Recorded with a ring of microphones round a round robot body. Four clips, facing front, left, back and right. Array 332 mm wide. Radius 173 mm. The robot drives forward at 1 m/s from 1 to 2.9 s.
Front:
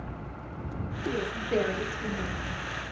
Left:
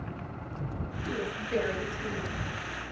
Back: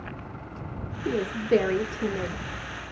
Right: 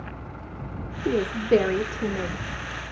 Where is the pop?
No pop in this recording.